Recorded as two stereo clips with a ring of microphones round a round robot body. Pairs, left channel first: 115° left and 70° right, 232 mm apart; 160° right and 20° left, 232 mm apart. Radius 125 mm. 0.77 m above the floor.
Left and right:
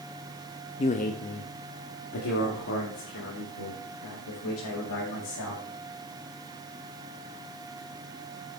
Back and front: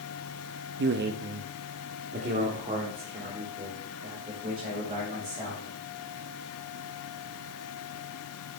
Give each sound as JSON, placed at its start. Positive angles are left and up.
{"t": 0.8, "sound": "a man speaking", "azimuth_deg": 50, "distance_m": 0.6}